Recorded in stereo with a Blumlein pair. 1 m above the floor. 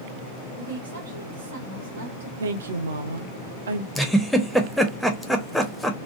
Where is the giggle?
Straight ahead, 0.6 m.